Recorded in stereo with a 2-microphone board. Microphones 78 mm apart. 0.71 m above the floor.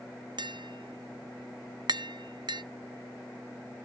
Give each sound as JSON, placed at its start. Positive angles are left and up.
{"t": 0.4, "sound": "tapping", "side_deg": -70, "distance_m": 0.5}